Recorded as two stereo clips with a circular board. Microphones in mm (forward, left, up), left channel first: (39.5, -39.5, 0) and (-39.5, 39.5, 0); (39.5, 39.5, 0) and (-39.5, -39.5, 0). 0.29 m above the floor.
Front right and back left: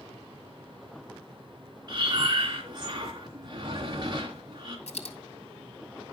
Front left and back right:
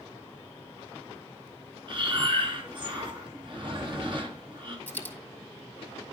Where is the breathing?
175° right, 3 m.